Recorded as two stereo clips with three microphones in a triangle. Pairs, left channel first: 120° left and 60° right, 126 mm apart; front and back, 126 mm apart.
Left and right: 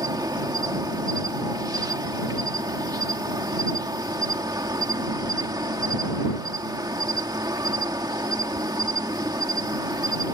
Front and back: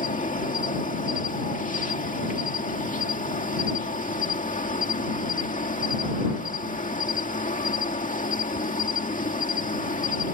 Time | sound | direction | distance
0.0 | an insect | straight ahead | ?